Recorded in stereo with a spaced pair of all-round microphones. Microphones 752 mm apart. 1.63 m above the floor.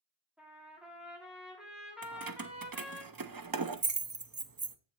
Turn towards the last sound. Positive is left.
turn(degrees=-30)  # may be behind; listen again after turning